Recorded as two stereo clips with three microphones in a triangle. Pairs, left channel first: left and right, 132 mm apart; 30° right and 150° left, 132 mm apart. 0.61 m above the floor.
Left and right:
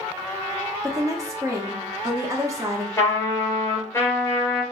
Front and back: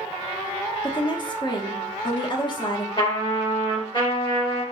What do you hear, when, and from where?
0.8 s a woman speaking: 40° right, 0.9 m
3.0 s a trumpet: 20° left, 2.5 m